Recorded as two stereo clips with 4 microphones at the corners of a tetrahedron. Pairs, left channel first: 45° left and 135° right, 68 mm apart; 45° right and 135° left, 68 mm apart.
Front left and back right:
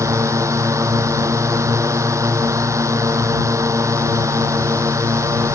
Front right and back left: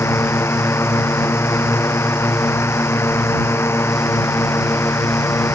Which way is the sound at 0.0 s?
95° right.